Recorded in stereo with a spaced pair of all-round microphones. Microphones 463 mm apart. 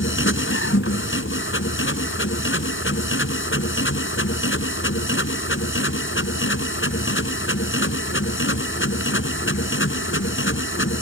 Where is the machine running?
25° left (ahead or behind).